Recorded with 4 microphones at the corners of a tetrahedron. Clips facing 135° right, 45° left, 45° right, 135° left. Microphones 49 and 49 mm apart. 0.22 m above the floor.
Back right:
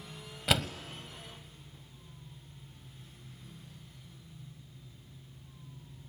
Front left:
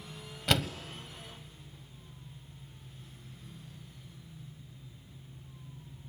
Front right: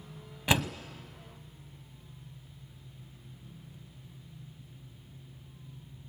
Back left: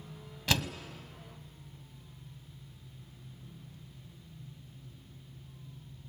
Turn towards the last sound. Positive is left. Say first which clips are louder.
# even, front right 3 dB
turn(degrees=-55)